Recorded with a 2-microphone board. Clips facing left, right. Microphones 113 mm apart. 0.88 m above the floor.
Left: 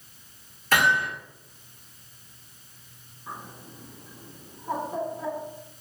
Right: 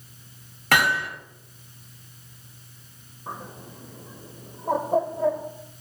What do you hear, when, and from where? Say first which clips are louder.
0.7 s hammering: even; 70° right (ahead or behind), 4 m
3.3 s a bird: right 3 dB; 60° right (ahead or behind), 0.9 m